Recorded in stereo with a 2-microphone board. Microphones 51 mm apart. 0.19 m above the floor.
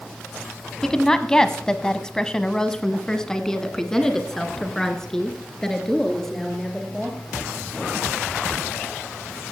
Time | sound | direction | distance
0.8 | a woman speaking | 10° left (ahead or behind) | 1.1 m